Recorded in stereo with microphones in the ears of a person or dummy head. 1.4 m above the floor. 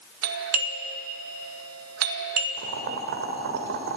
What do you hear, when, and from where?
0.2 s a doorbell: 85° right, 1.8 m
2.6 s boiling: 55° right (ahead or behind), 1.9 m